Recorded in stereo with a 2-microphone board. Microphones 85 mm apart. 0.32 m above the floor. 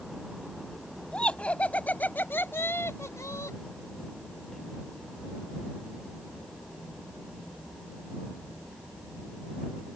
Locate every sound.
1.1 s laughter: 10° left (ahead or behind); by 3.6 s 40° left (ahead or behind)